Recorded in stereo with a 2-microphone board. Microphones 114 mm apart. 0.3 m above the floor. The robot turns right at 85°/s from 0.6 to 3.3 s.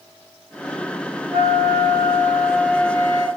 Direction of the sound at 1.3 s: 120° right.